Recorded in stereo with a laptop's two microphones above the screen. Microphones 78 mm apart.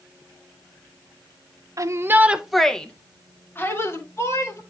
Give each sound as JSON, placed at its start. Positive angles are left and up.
{"t": 1.8, "sound": "a shout", "side_deg": -45, "distance_m": 0.7}